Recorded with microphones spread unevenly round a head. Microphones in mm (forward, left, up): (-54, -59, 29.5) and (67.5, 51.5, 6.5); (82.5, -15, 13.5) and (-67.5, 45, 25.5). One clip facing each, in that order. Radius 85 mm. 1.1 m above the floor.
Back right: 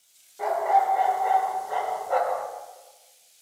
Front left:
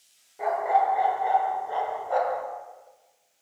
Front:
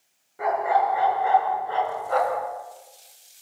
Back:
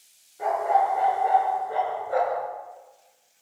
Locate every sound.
0.4 s a dog barking: 45° right, 6 m; by 2.5 s 40° right, 4 m